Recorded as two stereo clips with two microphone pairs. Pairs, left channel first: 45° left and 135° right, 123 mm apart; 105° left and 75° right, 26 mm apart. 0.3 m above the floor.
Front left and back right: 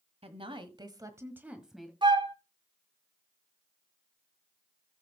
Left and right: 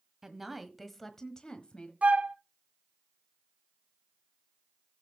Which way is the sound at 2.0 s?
90° right.